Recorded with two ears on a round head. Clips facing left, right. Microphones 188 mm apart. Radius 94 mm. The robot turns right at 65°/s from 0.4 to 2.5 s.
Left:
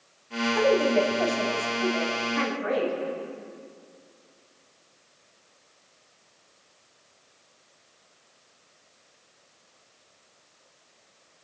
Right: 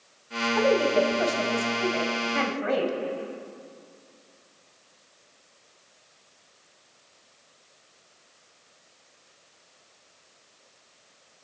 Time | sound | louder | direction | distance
0.6 | a woman speaking | even | 165° left | 2.5 m